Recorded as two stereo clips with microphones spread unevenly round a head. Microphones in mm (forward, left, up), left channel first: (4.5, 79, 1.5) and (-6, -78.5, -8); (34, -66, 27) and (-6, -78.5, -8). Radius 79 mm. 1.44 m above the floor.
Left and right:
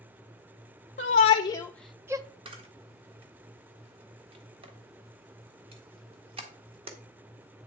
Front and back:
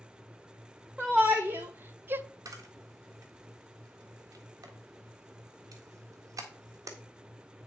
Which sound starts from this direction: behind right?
A camera shutter, at 2.5 s.